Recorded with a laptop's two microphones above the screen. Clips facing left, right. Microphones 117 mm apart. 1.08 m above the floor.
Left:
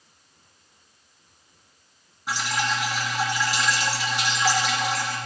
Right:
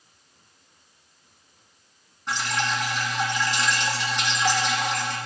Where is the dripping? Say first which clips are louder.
Even; 5° left (ahead or behind), 2.5 m.